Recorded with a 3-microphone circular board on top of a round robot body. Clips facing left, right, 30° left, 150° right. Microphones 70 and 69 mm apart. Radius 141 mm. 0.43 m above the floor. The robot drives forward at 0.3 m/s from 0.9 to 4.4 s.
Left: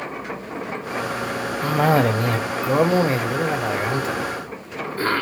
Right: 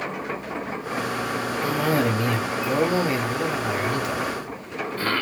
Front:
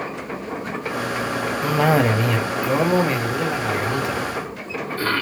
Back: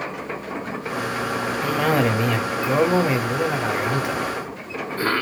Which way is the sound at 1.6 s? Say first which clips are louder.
Left 5 dB, front 3 dB; 105° left.